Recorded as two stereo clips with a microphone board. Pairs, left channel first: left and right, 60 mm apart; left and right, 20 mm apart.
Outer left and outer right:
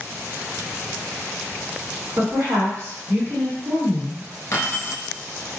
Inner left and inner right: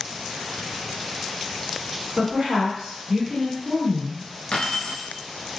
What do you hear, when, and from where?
2.2 s a woman speaking: 60° right (ahead or behind), 1.8 m
4.5 s keys jangling: 55° left (ahead or behind), 1.4 m